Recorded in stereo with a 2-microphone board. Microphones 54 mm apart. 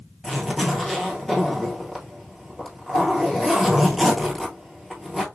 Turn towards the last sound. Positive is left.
turn(degrees=0)  # may be behind; listen again after turning